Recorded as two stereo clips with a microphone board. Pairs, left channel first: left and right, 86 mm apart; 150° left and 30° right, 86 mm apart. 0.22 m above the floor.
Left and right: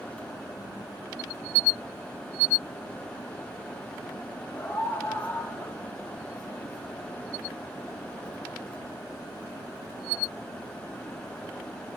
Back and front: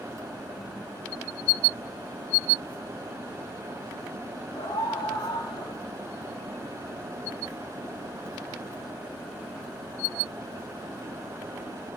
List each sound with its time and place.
4.5 s a scream: 160° left, 6 m; by 5.8 s 155° left, 7 m